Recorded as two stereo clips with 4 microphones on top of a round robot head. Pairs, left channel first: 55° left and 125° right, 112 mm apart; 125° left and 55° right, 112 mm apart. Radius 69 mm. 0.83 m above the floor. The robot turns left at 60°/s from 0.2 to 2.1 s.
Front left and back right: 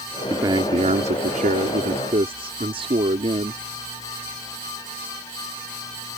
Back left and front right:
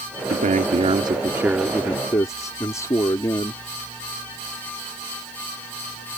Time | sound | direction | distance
0.3 | a man speaking | 60° right | ?